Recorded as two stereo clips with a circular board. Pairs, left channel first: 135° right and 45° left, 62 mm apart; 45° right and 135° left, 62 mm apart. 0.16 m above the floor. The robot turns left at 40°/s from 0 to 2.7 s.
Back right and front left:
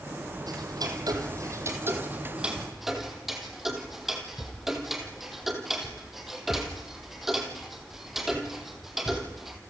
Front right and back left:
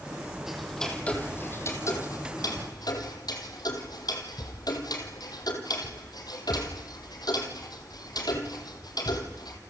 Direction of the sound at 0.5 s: 50° left.